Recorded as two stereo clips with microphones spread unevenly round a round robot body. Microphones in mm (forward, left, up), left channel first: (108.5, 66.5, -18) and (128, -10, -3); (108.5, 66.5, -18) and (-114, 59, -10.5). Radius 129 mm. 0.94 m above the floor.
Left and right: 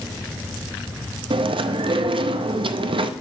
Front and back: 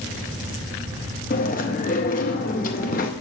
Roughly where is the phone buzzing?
I don't hear a phone buzzing.